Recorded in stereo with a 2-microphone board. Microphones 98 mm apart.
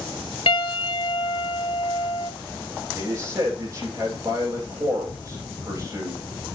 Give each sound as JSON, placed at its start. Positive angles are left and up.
{"t": 0.5, "sound": "a piano", "side_deg": 75, "distance_m": 0.9}
{"t": 2.9, "sound": "a man speaking", "side_deg": -35, "distance_m": 9.5}